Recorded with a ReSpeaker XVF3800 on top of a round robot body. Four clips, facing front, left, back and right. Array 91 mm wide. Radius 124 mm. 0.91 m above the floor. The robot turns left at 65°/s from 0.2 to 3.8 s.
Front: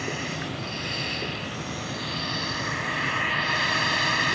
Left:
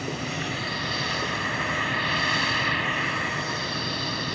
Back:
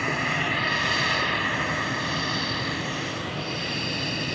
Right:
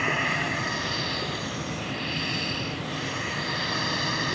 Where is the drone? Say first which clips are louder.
Right 5 dB, back 6 dB; 130° right; by 4.4 s 5° right.